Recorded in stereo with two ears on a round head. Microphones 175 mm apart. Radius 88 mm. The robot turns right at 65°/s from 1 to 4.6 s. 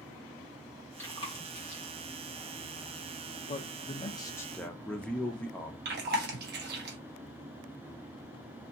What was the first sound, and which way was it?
Chewing, 10° left (ahead or behind).